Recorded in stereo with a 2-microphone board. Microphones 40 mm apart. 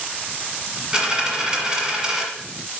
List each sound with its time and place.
0.9 s a dropped coin: 15° right (ahead or behind), 1.4 m